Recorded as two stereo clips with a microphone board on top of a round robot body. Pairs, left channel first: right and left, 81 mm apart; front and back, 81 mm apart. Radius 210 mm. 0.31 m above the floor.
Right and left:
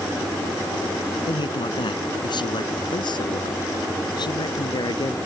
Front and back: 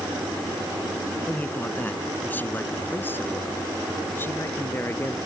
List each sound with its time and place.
1.3 s a man speaking: 70° right; by 5.2 s 60° right